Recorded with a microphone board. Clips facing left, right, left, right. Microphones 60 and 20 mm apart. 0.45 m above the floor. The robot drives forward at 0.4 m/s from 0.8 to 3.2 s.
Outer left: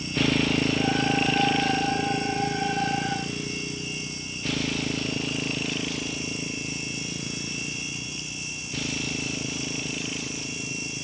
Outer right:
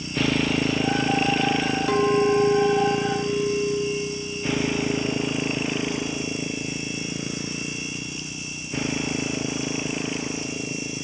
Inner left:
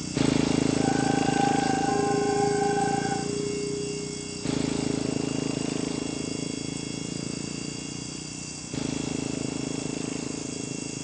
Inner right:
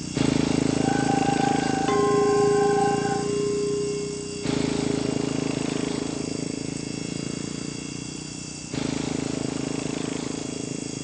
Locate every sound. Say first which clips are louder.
0.0 s a motorcycle: outer right 1 dB, inner right 1 dB; 5° right (ahead or behind); by 11.1 s 30° right (ahead or behind)
1.9 s a clink: outer right 7 dB, inner right 4 dB; 75° right (ahead or behind); by 6.2 s 80° right